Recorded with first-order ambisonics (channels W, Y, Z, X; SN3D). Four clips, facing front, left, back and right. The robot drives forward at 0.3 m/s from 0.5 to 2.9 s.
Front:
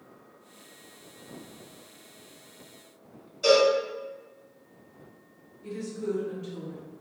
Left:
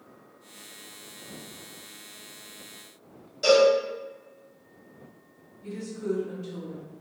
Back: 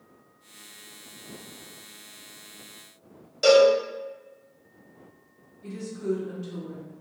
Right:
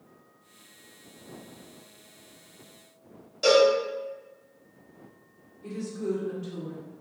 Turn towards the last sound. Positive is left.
turn(degrees=-165)